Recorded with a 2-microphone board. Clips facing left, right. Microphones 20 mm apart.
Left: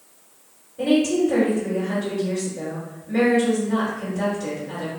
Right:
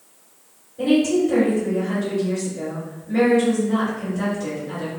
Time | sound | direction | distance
0.8 | a woman speaking | 5° left (ahead or behind) | 1.9 m